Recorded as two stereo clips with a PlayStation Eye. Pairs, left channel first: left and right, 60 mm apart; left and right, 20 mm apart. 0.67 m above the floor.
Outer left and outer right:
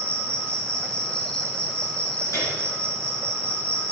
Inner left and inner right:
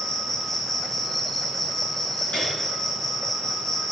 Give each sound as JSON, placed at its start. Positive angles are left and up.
{"t": 0.0, "sound": "an insect", "side_deg": 20, "distance_m": 1.2}
{"t": 2.3, "sound": "a piano", "side_deg": 75, "distance_m": 4.0}